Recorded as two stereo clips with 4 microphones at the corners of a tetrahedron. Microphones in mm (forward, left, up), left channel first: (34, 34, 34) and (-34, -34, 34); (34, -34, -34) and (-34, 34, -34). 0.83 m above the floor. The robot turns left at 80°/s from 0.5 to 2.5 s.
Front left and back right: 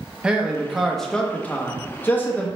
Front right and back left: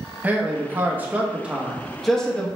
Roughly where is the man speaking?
Behind.